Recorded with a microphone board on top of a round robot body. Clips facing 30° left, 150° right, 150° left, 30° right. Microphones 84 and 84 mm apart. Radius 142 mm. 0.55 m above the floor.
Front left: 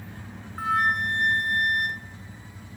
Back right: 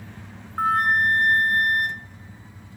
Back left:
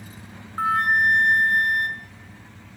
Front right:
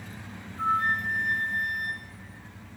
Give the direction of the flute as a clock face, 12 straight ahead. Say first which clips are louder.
Back right 4 dB, back left 6 dB; 7 o'clock.